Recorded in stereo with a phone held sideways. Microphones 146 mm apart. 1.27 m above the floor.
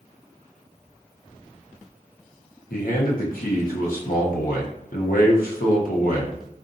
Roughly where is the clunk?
I don't hear a clunk.